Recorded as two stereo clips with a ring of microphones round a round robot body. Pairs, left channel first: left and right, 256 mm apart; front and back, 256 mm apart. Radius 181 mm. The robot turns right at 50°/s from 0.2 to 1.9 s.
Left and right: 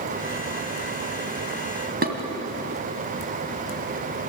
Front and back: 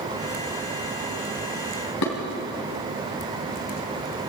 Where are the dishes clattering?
35° right, 3 m.